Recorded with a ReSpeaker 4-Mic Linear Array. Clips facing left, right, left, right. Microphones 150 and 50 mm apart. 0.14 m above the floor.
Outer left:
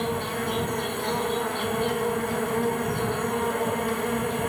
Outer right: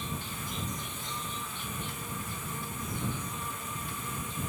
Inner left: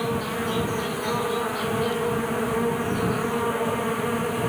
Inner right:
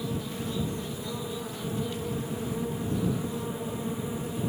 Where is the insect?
85° left.